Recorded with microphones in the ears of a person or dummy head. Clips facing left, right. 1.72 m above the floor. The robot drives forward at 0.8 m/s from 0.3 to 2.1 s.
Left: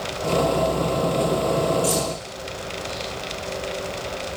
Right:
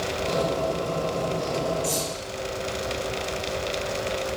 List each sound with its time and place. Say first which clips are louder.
1.8 s keys jangling: left 5 dB; 15° left (ahead or behind), 1.1 m